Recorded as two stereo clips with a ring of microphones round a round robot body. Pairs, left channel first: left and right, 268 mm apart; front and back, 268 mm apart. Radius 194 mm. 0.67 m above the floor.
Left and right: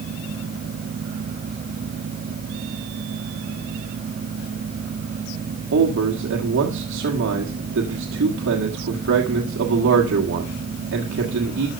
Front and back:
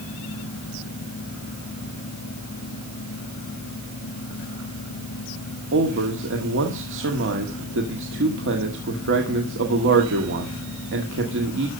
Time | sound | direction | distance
5.7 | a man speaking | 135° right | 1.5 m